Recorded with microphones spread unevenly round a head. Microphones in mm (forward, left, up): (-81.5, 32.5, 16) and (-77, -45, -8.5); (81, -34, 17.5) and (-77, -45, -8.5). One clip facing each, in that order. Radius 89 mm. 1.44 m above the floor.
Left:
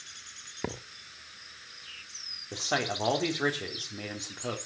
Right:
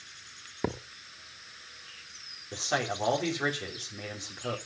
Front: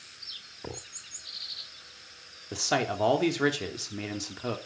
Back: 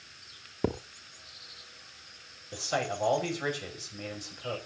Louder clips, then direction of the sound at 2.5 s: Even, front 3 dB; 20° left.